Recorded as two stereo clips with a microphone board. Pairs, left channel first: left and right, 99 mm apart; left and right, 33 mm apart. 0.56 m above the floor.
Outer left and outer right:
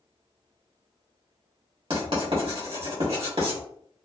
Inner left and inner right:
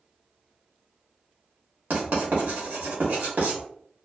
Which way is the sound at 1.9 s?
65° right (ahead or behind).